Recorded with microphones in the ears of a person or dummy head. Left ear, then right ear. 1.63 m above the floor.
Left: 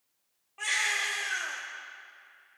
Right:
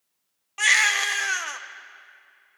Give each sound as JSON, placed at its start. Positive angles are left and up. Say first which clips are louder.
{"t": 0.6, "sound": "a baby crying", "louder": "right 9 dB", "side_deg": -55, "distance_m": 0.9}